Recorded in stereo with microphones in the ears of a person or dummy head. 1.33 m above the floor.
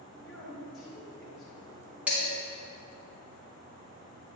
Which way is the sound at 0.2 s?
5° left (ahead or behind).